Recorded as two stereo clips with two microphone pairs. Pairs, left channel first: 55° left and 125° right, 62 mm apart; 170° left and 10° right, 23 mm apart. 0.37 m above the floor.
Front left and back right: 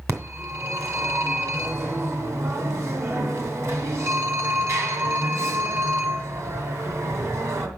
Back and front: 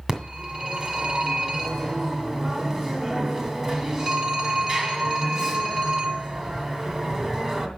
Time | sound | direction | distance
0.1 | a phone ringing | 90° right | 2 m